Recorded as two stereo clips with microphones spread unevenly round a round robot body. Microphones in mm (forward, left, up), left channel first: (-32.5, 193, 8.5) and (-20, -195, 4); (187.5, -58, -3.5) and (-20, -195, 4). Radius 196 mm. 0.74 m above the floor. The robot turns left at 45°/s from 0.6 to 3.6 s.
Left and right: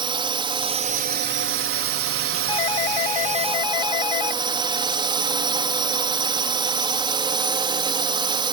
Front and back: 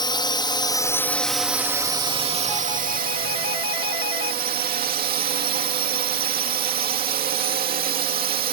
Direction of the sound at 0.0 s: 20° right.